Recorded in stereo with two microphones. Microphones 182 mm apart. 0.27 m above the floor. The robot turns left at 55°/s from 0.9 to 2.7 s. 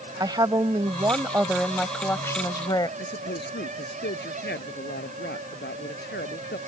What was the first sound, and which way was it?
A woman speaking, 130° right.